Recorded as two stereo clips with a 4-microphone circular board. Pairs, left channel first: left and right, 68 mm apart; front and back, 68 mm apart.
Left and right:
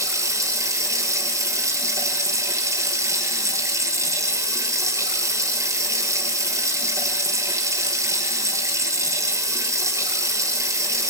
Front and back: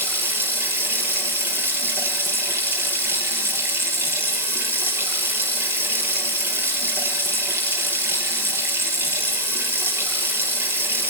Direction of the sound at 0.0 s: 125° right.